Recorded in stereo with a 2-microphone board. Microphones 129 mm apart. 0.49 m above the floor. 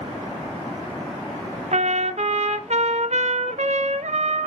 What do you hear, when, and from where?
1.7 s a trumpet: 60° right (ahead or behind), 1.2 m